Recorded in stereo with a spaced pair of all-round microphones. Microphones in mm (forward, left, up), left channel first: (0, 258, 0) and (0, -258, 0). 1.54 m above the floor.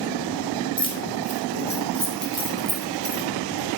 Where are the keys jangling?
10° left (ahead or behind), 4 m; by 3.2 s 45° left (ahead or behind), 2.5 m.